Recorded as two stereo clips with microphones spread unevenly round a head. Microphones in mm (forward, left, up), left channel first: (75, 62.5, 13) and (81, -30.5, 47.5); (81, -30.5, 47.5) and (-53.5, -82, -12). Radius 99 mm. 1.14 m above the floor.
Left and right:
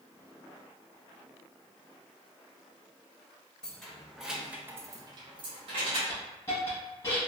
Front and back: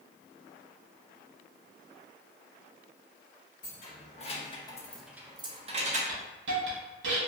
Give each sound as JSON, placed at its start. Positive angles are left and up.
{"t": 3.6, "sound": "keys jangling", "azimuth_deg": 5, "distance_m": 1.0}
{"t": 6.1, "sound": "a hiss", "azimuth_deg": 180, "distance_m": 0.7}